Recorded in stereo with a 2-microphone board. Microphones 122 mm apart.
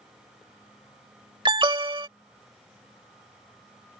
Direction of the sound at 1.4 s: 40° right (ahead or behind).